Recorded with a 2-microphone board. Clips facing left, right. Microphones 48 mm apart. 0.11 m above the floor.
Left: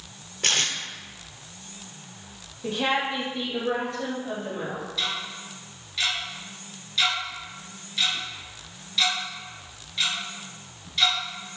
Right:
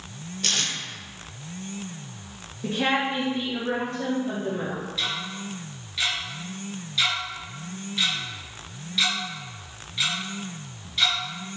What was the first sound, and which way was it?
Tape being pulled, 40° left (ahead or behind).